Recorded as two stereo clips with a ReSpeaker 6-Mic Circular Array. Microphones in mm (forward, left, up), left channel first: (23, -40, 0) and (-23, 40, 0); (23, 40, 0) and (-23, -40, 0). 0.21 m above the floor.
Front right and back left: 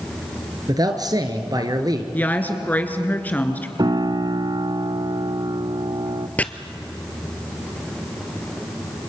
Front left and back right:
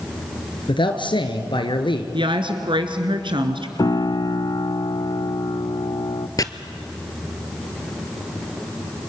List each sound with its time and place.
0.7 s a man speaking: 80° left, 2.5 m
2.1 s a woman speaking: 130° right, 2.5 m
3.8 s a piano: 90° left, 0.6 m
6.4 s chopping: 15° left, 1.0 m